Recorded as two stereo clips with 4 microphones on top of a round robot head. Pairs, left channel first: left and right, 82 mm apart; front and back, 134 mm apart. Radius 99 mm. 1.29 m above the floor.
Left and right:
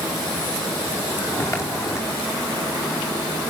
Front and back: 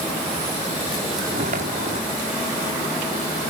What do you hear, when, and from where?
1.3 s footsteps: 145° left, 5 m